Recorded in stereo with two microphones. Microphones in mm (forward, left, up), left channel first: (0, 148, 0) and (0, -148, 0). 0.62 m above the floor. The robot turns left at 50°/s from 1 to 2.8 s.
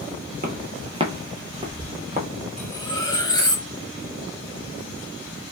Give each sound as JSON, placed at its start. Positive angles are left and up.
{"t": 0.4, "sound": "footsteps", "side_deg": -35, "distance_m": 0.7}
{"t": 2.6, "sound": "cutlery clinking", "side_deg": 0, "distance_m": 0.8}